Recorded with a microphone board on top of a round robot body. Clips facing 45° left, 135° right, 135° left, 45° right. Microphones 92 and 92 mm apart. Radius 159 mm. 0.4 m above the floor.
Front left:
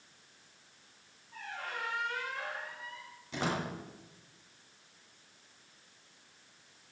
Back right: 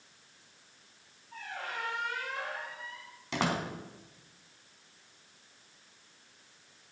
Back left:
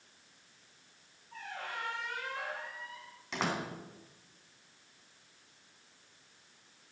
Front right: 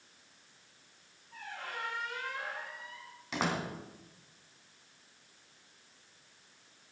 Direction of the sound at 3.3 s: 130° right.